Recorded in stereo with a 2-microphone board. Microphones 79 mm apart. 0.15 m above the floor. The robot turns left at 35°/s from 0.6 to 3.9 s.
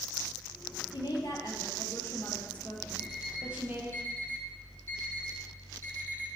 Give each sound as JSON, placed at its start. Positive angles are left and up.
{"t": 0.9, "sound": "a woman speaking", "azimuth_deg": 75, "distance_m": 4.0}
{"t": 3.0, "sound": "an alarm clock", "side_deg": 60, "distance_m": 3.0}